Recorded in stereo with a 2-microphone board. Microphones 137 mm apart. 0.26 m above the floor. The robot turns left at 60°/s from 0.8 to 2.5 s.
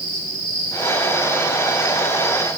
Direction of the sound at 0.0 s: 145° left.